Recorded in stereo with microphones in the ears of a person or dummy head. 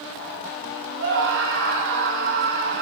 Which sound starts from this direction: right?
A scream, at 1.0 s.